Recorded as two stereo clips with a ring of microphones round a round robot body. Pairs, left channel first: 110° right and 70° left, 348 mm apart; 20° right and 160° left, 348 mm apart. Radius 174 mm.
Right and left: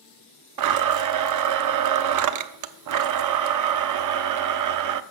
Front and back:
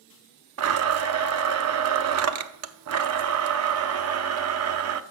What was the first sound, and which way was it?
A blender, 110° left.